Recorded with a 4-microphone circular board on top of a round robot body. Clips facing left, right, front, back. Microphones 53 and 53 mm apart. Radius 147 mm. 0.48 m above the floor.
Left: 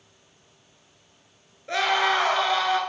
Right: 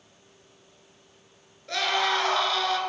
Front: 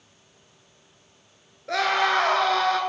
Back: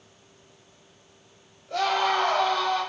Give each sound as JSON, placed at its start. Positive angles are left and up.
{"t": 1.7, "sound": "a scream", "azimuth_deg": 20, "distance_m": 8.0}